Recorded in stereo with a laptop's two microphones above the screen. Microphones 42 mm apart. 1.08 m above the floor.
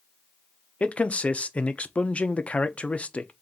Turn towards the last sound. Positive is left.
turn(degrees=30)  # may be behind; listen again after turning